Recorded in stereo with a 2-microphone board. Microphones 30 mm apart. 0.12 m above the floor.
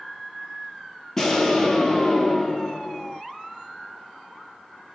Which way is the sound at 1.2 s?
20° left (ahead or behind).